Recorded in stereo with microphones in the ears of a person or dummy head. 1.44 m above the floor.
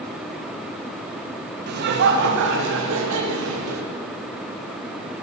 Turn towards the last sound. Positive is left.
turn(degrees=-75)  # may be behind; listen again after turning